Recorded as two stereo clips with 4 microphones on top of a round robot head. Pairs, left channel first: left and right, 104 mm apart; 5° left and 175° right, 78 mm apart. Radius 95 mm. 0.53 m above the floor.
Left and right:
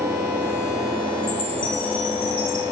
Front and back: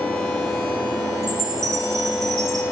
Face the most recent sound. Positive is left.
turn(degrees=140)